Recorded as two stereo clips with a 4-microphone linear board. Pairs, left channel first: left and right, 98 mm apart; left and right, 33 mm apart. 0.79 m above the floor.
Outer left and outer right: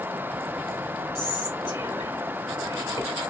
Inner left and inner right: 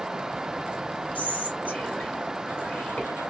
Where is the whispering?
45° left (ahead or behind), 1.5 m.